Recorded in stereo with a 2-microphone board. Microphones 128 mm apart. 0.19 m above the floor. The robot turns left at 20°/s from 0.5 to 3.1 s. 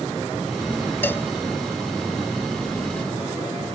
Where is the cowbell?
15° left (ahead or behind); by 1.3 s 20° left (ahead or behind).